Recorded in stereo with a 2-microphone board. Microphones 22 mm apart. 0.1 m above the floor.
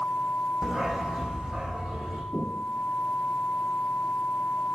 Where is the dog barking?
25° right (ahead or behind), 2 m; by 2.2 s 45° right (ahead or behind), 2.5 m.